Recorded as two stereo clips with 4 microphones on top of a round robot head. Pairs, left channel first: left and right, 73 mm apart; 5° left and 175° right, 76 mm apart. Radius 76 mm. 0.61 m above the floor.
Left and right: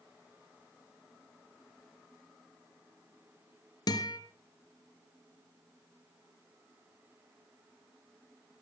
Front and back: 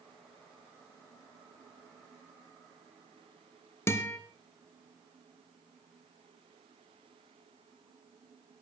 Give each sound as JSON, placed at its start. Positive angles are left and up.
{"t": 3.9, "sound": "a guitar", "azimuth_deg": 60, "distance_m": 3.0}